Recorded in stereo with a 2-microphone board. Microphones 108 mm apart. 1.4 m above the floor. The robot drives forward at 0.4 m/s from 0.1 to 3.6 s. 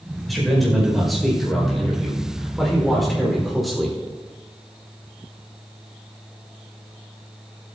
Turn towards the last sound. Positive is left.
turn(degrees=0)  # may be behind; listen again after turning